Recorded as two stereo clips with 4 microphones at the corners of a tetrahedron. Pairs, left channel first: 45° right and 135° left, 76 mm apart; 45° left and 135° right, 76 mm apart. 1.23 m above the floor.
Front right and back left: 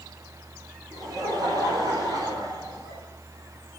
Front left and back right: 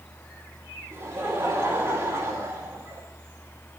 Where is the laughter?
165° left, 4 m.